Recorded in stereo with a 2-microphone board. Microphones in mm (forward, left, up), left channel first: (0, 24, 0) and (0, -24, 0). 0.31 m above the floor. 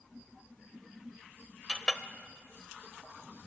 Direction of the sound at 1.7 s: 20° left (ahead or behind).